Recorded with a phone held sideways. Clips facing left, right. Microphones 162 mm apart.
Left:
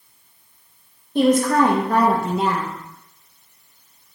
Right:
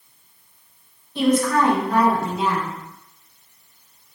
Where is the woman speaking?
50° left (ahead or behind), 1.1 m.